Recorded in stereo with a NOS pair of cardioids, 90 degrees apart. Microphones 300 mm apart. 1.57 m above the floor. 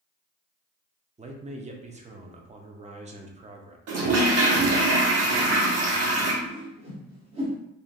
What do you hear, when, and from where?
1.2 s a man speaking: 25° right, 0.7 m
3.9 s a toilet flushing: 55° right, 1.0 m
6.4 s a whoosh: 20° right, 1.0 m